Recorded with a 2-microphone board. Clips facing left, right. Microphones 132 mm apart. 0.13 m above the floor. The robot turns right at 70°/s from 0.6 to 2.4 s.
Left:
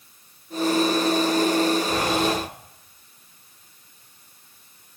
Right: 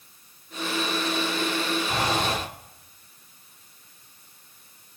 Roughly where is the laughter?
No laughter in this recording.